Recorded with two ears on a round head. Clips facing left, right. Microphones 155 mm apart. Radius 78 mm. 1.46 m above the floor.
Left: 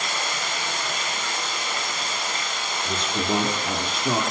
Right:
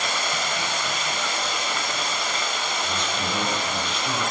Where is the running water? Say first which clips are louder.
Right 2 dB; 70° right (ahead or behind), 8 m.